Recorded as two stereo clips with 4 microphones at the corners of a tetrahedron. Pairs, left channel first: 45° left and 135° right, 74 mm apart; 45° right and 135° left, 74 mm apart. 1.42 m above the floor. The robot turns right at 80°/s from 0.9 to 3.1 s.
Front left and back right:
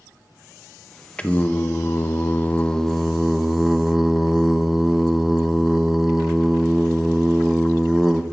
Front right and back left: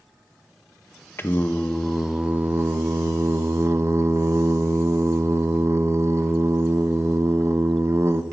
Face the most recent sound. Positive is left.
turn(degrees=140)